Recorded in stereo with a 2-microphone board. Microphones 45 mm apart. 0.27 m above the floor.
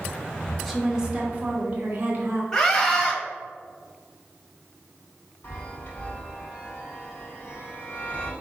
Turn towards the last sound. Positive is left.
turn(degrees=45)  # may be behind; listen again after turning